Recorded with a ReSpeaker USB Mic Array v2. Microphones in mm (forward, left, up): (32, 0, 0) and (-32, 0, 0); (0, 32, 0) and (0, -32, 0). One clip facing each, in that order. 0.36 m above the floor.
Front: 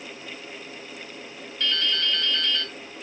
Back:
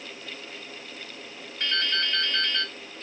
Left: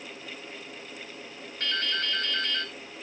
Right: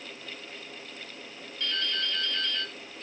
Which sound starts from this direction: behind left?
Dripping, at 1.6 s.